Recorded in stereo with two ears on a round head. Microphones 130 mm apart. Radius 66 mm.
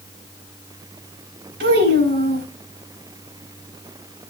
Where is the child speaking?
90° right, 4.5 m.